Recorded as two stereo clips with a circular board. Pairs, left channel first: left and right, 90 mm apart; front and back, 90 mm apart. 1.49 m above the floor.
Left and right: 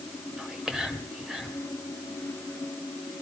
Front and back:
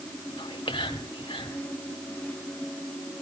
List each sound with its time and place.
0.4 s whispering: 5° right, 2 m